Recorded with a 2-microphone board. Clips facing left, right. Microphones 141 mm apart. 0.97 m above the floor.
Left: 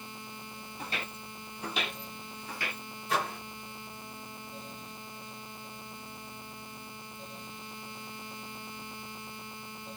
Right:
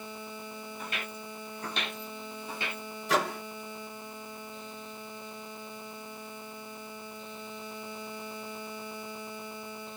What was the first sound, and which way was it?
Footsteps, 35° left (ahead or behind).